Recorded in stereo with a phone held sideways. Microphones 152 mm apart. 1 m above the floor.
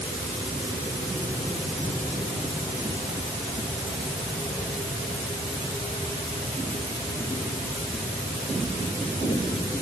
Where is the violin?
No violin in this recording.